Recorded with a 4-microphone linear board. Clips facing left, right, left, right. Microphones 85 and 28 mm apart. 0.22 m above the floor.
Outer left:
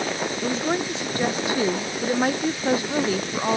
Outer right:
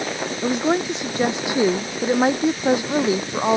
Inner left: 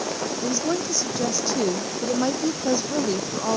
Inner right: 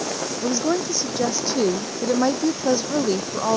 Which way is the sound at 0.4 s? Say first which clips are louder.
Outer right 6 dB, inner right 4 dB; 20° right (ahead or behind).